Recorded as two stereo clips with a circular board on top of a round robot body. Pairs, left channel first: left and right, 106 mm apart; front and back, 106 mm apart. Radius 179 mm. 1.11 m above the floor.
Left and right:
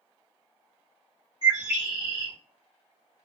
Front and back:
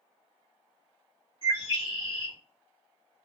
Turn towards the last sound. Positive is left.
turn(degrees=-140)